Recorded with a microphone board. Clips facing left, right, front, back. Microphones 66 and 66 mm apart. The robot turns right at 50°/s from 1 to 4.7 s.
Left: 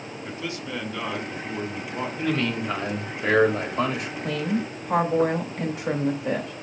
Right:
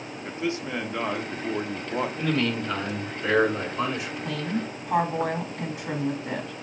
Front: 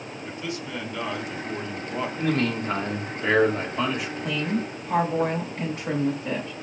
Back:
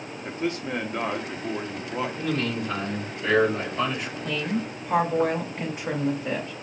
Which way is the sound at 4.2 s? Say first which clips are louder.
Left 5 dB, even; 75° left.